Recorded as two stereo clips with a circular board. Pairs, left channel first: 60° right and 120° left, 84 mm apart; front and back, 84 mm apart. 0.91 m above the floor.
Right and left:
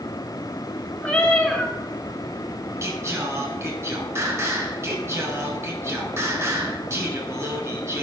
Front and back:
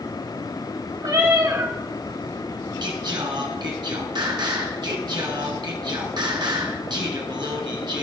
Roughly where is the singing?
Behind.